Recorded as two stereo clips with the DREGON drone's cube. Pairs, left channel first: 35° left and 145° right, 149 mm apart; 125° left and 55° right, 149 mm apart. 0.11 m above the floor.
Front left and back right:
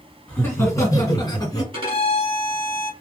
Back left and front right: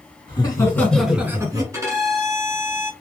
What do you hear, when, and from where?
0.3 s laughter: 100° left, 1.8 m; by 1.6 s 10° right, 1.8 m
1.7 s a violin: 115° right, 1.4 m